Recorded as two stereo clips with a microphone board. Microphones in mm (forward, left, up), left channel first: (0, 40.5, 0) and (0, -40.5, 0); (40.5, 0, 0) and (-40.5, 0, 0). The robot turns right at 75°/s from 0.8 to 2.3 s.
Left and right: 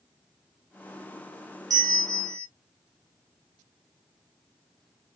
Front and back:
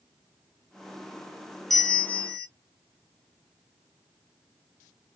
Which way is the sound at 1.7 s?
85° right.